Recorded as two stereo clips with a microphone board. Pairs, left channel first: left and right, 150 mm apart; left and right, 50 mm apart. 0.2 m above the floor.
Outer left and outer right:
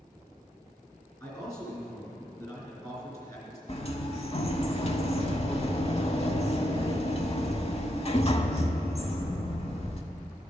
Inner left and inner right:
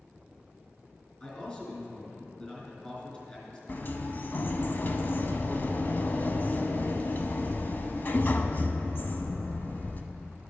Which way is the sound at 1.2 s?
25° left (ahead or behind).